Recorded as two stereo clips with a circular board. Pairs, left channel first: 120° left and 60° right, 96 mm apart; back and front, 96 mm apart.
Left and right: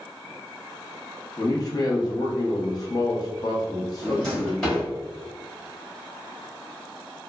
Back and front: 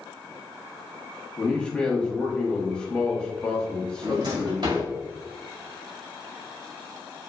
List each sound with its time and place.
1.4 s a man speaking: 105° left, 0.8 m
4.0 s a drawer: 35° left, 1.8 m